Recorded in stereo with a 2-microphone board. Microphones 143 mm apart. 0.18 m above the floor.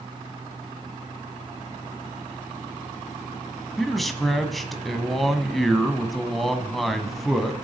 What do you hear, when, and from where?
3.8 s a man speaking: centre (ahead or behind), 1.0 m